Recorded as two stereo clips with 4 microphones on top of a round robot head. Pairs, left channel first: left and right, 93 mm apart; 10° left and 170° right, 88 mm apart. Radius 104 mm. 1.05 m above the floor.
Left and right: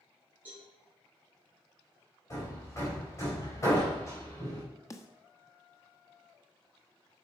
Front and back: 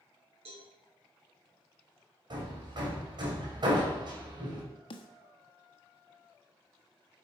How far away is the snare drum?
About 1.2 m.